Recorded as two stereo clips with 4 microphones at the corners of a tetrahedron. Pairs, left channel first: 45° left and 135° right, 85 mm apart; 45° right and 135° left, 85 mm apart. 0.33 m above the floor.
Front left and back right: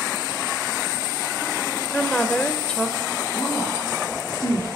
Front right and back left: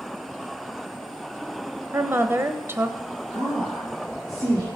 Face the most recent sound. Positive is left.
turn(degrees=100)